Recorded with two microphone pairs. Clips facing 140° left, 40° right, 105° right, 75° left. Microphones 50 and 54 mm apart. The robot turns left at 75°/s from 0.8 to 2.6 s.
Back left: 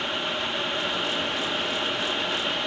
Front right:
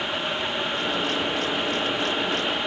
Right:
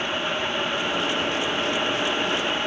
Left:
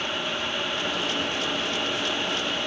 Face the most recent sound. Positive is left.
No sound to turn to.